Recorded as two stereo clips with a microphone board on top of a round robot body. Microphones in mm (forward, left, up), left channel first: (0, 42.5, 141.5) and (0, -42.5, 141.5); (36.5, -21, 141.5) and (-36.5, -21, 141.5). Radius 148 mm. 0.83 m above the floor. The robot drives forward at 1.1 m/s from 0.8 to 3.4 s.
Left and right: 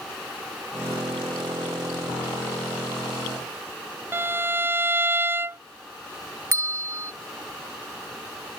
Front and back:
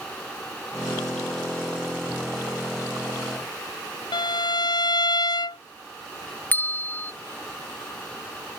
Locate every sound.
4.1 s a violin: 25° right
6.5 s a bell: 55° right